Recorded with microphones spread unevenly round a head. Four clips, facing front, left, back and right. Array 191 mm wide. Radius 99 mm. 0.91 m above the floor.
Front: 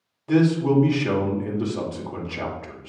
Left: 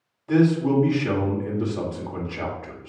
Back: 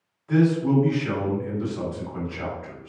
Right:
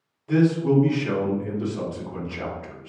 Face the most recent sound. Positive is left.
turn(degrees=5)